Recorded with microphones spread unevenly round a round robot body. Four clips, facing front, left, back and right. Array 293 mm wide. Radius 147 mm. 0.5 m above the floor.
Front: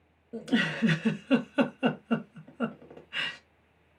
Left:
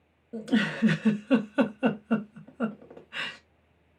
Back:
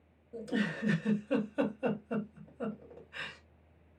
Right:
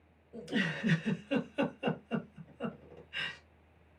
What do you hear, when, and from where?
0.3 s a giggle: 45° left, 0.9 m